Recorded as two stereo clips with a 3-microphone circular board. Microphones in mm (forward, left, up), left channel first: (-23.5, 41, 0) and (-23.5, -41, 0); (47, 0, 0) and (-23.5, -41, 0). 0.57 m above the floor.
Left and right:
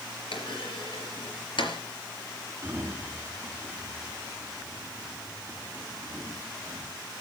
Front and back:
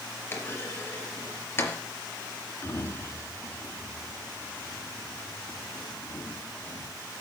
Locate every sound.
0.3 s a clunk: 90° left, 4 m
2.6 s a sliding door: 25° right, 4 m